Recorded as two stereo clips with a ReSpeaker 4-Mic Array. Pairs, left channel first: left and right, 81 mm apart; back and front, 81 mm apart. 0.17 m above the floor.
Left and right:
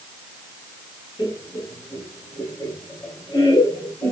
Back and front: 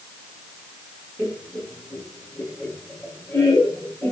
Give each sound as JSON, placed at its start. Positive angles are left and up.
{"t": 1.2, "sound": "laughter", "azimuth_deg": 115, "distance_m": 1.6}